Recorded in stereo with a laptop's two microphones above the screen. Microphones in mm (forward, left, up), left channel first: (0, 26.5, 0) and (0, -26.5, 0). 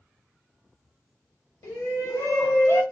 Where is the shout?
55° left (ahead or behind), 1.6 m; by 2.8 s 45° left (ahead or behind), 0.9 m.